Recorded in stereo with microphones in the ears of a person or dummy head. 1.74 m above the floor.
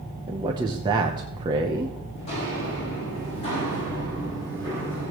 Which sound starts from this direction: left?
Footsteps, at 2.1 s.